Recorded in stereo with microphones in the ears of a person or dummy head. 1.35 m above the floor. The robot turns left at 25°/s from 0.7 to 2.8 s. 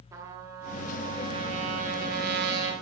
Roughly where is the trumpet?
Ahead.